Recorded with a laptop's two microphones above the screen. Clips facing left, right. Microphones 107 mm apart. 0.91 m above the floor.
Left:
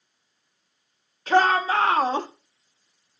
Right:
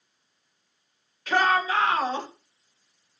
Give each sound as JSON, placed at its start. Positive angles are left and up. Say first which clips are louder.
{"t": 1.3, "sound": "a shout", "louder": "left 3 dB", "side_deg": 30, "distance_m": 3.0}